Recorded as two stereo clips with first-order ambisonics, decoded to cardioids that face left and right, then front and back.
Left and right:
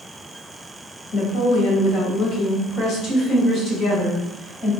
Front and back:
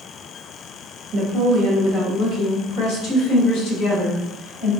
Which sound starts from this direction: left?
A woman speaking, at 1.1 s.